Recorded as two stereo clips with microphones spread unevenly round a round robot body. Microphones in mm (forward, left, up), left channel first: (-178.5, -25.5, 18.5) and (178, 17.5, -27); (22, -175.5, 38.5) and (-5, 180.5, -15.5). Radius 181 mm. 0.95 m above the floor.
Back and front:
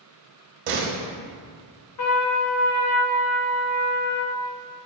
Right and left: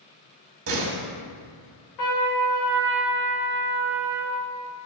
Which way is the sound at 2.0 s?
125° right.